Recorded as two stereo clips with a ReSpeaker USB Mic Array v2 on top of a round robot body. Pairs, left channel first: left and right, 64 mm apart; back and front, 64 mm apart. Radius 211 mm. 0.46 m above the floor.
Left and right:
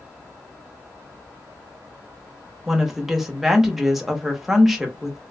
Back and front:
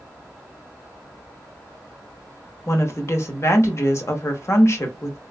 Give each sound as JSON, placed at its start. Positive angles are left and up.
{"t": 2.7, "sound": "a woman speaking", "azimuth_deg": -175, "distance_m": 1.2}